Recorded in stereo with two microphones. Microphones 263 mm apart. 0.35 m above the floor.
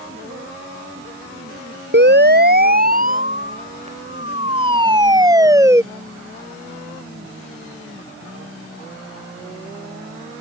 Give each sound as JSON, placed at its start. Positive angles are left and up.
{"t": 1.9, "sound": "a siren", "side_deg": -40}